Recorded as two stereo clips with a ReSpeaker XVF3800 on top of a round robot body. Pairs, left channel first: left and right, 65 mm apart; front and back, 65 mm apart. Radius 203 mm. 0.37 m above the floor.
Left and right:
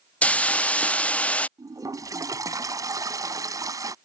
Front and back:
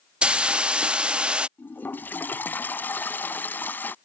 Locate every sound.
0.2 s a hiss: 130° left
1.6 s a toilet flushing: 60° right